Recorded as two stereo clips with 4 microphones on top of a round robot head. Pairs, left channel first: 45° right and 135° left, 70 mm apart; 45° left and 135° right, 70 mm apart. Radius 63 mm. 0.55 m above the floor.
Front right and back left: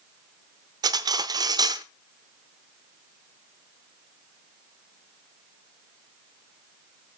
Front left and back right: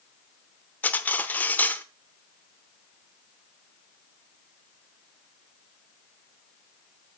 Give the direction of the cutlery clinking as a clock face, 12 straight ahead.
8 o'clock.